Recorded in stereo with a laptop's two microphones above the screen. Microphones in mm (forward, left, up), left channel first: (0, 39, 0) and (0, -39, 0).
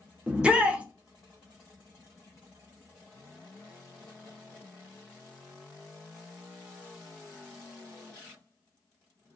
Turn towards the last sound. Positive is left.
turn(degrees=-15)  # may be behind; listen again after turning